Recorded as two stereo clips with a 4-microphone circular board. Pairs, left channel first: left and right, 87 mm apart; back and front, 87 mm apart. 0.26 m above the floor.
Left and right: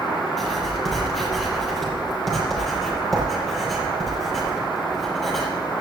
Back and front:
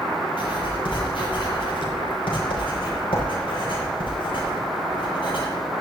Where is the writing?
Straight behind, 6 m.